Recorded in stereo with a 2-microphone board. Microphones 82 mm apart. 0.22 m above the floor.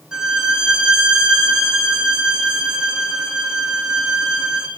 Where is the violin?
5° right (ahead or behind), 4 m.